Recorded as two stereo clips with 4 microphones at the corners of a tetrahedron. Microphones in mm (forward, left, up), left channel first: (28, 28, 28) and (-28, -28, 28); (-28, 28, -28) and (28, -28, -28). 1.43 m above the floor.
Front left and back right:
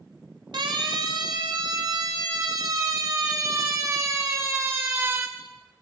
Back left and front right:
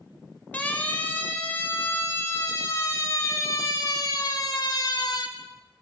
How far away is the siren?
About 4.5 m.